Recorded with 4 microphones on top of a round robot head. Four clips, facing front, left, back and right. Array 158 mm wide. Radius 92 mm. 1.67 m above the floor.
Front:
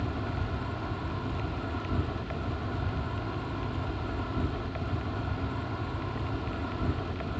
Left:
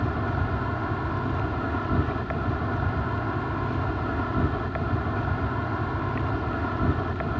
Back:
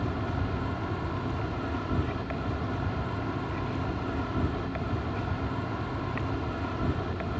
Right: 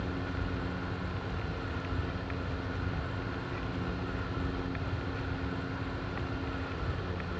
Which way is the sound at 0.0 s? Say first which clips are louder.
Left 8 dB, back 3 dB; 100° left.